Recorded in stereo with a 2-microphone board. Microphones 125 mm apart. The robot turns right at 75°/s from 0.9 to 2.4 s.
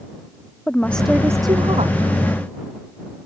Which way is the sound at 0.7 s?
170° left.